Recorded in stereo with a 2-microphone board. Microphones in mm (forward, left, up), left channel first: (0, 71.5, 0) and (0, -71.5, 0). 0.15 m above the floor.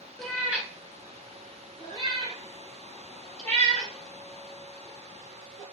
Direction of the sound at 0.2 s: Centre (ahead or behind).